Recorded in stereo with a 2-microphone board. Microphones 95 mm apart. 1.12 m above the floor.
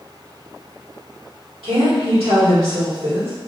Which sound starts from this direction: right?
A woman speaking, at 1.6 s.